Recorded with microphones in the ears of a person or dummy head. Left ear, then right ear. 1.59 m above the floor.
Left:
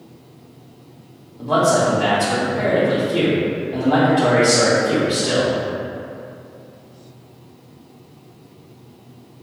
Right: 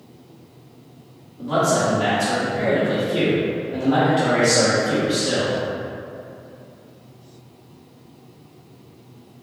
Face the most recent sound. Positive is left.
turn(degrees=20)  # may be behind; listen again after turning